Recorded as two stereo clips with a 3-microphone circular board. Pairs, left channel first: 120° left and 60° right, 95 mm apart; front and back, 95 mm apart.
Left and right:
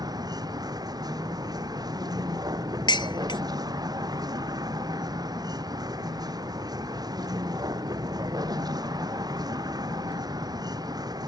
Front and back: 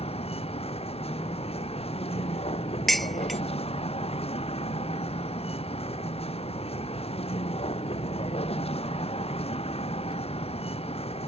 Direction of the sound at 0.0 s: 10° right.